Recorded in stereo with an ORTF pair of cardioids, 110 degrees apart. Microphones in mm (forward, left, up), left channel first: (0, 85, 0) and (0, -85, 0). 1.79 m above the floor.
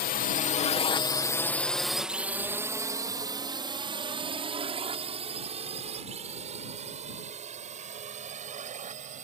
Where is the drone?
65° left; by 9.2 s 45° right.